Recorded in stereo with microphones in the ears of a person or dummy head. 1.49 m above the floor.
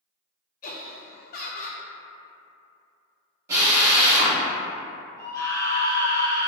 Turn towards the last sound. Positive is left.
turn(degrees=20)  # may be behind; listen again after turning